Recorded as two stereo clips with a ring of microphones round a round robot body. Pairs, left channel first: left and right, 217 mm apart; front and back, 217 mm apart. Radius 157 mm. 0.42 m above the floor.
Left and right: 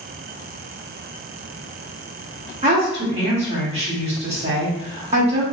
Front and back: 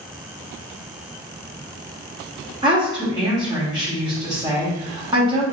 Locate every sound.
2.6 s a woman speaking: 125° right, 1.3 m